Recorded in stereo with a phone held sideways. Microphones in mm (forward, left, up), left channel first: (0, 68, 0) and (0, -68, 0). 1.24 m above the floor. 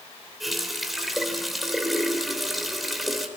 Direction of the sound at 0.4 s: Centre (ahead or behind).